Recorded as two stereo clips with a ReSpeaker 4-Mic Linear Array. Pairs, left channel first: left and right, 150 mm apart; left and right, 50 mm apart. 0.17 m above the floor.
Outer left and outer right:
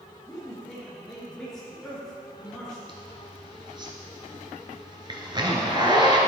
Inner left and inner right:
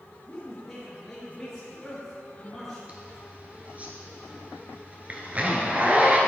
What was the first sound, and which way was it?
A man speaking, 5° left (ahead or behind).